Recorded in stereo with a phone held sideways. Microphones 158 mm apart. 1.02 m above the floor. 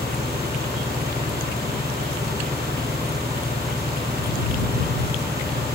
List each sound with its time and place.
0.0 s an engine running: 85° right